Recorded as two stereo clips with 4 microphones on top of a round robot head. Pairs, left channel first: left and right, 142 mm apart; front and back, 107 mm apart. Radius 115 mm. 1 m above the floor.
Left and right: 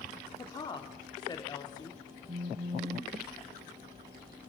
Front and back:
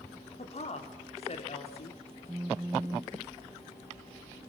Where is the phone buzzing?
105° right, 0.6 m.